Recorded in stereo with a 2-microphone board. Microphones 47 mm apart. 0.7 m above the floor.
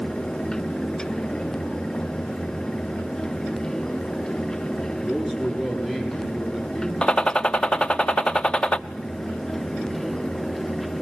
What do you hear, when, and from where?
5.0 s a man speaking: 15° right (ahead or behind), 9 m
7.0 s a gunshot: 20° left (ahead or behind), 0.5 m